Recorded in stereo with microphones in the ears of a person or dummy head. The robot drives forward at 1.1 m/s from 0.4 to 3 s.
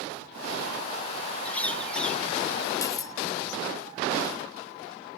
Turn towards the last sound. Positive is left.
turn(degrees=20)  # may be behind; listen again after turning